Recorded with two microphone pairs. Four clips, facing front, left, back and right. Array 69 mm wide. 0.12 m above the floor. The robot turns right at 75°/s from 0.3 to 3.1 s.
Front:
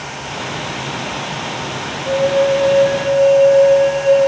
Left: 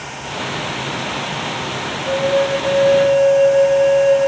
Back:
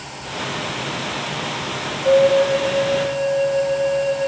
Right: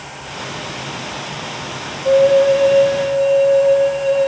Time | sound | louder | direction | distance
2.0 | a flute | right 6 dB, back 1 dB | 135° right | 3.5 m